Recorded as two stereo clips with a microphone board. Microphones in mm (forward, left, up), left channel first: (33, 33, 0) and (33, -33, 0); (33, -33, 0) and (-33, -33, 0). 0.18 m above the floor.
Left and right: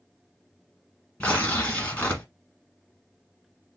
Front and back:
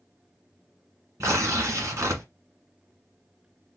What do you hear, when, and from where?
1.2 s tearing paper: 150° left, 1.4 m